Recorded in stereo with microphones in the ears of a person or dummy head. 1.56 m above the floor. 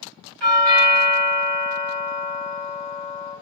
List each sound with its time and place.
0.4 s a doorbell: 75° right (ahead or behind), 1.6 m